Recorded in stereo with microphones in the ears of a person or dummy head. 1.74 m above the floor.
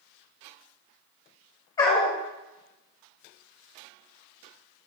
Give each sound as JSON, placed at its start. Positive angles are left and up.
{"t": 1.8, "sound": "a dog barking", "side_deg": 15, "distance_m": 1.5}